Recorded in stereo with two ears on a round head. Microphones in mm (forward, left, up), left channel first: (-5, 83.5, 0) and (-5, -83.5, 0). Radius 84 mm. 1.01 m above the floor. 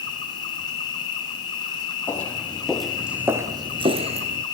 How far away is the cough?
I don't hear a cough.